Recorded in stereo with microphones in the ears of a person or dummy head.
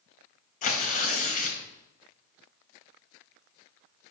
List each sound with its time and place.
0.6 s tearing paper: 45° left (ahead or behind), 1.8 m